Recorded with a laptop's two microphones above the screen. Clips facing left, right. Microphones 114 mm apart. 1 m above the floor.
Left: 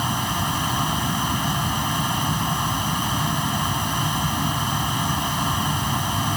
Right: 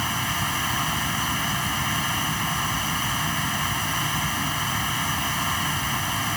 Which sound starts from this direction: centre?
A fan, at 0.0 s.